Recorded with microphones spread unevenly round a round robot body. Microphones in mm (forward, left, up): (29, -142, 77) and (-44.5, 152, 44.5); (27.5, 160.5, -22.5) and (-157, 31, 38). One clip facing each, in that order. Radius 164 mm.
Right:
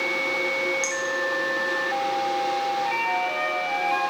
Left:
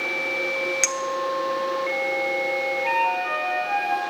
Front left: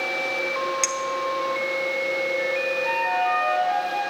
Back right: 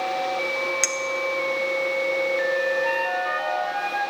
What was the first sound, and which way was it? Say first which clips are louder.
A clink: left 1 dB, even; 125° left.